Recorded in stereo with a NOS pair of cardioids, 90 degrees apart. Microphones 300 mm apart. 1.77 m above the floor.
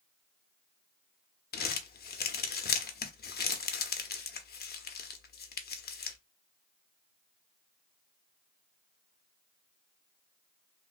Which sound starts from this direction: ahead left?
Crumpling, at 1.5 s.